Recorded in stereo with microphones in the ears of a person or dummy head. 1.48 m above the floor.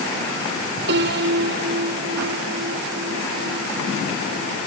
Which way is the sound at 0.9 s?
65° right (ahead or behind).